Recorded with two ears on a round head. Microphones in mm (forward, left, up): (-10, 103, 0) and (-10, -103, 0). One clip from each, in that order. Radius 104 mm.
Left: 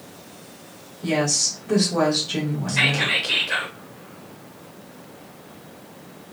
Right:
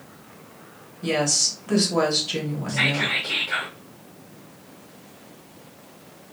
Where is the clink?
I don't hear a clink.